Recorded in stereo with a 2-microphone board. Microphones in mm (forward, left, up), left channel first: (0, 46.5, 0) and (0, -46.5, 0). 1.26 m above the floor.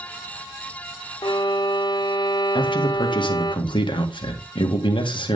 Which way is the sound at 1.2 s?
55° left (ahead or behind).